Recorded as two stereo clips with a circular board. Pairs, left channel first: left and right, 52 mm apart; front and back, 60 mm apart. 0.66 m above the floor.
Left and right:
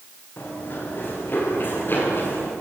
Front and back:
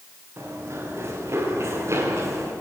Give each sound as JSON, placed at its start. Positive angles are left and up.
{"t": 0.4, "sound": "running footsteps", "azimuth_deg": 135, "distance_m": 8.5}